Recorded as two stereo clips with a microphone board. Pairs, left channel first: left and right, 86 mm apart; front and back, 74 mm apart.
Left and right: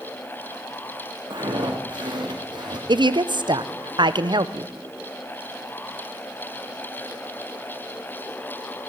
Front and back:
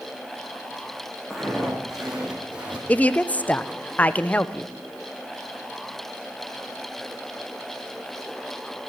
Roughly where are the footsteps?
Right.